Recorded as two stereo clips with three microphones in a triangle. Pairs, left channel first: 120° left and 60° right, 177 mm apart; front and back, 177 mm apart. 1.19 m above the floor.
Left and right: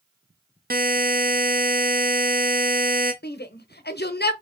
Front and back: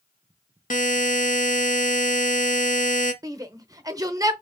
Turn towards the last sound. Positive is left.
turn(degrees=110)